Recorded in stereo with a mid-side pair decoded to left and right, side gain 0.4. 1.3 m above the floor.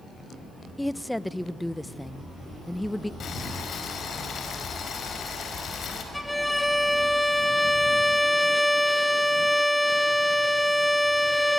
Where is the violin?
10° left, 1.6 m.